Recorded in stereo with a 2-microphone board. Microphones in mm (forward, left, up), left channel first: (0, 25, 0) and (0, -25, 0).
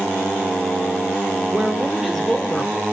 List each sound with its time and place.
1.5 s a woman speaking: 30° right (ahead or behind), 1.0 m; by 2.8 s 35° left (ahead or behind), 1.2 m